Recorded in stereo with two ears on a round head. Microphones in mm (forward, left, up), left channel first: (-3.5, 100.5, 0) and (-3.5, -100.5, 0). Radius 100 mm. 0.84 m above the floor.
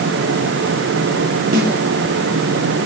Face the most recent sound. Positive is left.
turn(degrees=-45)  # may be behind; listen again after turning